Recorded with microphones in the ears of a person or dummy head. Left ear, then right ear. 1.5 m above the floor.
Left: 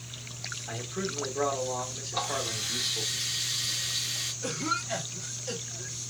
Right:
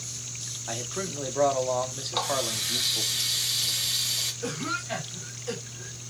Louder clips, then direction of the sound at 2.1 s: Right 3 dB; 35° right (ahead or behind).